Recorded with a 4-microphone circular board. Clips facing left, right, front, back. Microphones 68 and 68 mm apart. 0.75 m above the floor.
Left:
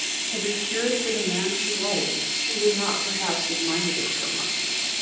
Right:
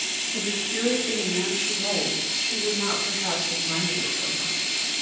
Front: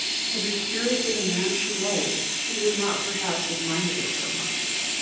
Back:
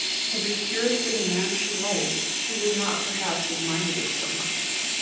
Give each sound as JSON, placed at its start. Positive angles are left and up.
{"t": 0.3, "sound": "a woman speaking", "azimuth_deg": 100, "distance_m": 5.5}